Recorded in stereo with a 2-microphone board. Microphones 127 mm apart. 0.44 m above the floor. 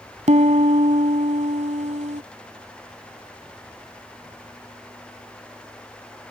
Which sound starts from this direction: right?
A piano, at 0.3 s.